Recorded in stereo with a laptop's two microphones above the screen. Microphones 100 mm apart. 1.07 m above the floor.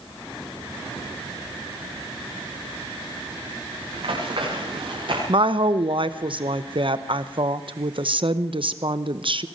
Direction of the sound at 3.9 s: 60° right (ahead or behind).